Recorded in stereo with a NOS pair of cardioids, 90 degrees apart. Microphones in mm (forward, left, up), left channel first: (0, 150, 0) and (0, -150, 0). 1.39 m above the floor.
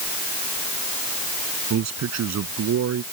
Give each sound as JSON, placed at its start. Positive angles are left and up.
{"t": 1.7, "sound": "a man speaking", "azimuth_deg": -60}